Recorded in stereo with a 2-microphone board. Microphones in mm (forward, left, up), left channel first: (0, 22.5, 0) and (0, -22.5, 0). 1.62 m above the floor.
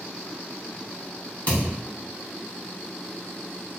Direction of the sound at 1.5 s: 40° left (ahead or behind).